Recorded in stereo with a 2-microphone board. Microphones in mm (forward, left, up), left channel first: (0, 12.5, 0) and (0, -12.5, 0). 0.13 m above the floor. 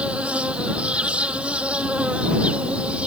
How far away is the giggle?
No giggle in this recording.